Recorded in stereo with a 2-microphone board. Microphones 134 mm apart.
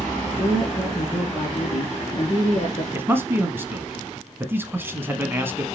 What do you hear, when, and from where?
0.4 s a woman speaking: 30° left (ahead or behind), 2.5 m
2.9 s a man speaking: 15° right (ahead or behind), 1.1 m